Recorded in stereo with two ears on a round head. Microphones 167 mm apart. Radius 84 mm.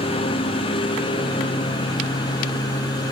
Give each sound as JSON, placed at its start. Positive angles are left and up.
{"t": 0.0, "sound": "a lawn mower", "side_deg": 30}